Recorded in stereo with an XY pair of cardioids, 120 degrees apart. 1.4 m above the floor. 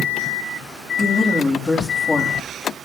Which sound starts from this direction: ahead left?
A woman speaking, at 1.0 s.